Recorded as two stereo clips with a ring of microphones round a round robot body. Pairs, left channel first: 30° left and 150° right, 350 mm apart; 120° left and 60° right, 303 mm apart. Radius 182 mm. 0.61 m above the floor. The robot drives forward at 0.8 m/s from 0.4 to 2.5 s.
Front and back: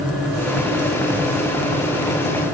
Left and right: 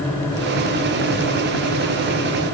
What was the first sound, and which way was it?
Only background noise.